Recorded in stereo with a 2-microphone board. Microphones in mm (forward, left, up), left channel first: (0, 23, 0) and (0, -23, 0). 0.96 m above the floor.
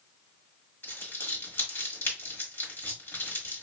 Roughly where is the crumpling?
Left.